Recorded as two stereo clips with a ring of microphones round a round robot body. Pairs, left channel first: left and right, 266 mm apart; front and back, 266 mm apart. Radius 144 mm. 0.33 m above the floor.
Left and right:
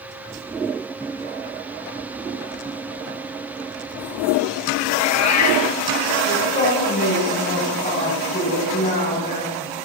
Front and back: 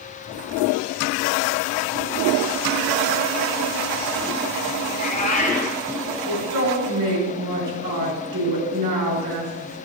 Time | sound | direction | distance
4.9 | a cat meowing | 65° left | 1.3 m
6.3 | a woman speaking | 160° left | 4 m